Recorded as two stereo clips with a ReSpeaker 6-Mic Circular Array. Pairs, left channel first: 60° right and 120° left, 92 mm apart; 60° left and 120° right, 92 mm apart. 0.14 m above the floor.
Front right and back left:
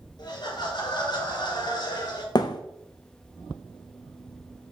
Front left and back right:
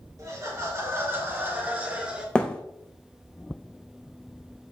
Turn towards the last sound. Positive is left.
turn(degrees=-20)